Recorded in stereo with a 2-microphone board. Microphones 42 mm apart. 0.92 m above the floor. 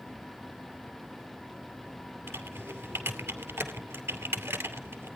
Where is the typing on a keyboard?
80° right, 2.5 m.